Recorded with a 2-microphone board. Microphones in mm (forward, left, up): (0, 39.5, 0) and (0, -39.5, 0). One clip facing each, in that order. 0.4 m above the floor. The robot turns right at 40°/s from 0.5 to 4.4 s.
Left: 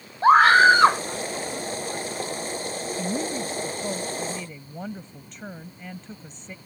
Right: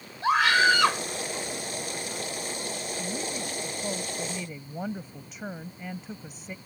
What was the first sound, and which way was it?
A scream, 40° left (ahead or behind).